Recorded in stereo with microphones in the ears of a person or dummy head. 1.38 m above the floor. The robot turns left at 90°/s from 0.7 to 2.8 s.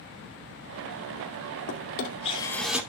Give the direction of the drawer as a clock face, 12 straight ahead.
9 o'clock.